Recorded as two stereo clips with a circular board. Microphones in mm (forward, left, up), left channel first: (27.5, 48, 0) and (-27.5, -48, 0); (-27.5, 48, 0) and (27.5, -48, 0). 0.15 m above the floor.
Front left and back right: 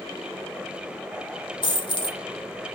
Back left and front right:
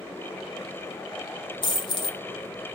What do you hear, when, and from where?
1.6 s a dropped coin: 90° left, 1.1 m